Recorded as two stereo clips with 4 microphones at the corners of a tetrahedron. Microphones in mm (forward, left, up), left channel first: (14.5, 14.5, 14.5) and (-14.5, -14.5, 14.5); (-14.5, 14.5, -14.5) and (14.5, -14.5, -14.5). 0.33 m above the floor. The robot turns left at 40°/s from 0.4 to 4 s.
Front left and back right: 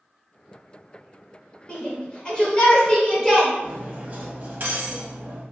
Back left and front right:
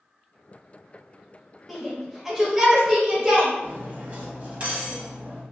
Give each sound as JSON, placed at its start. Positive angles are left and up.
{"t": 1.7, "sound": "a shout", "azimuth_deg": 40, "distance_m": 1.0}
{"t": 3.6, "sound": "cutlery clinking", "azimuth_deg": -85, "distance_m": 0.9}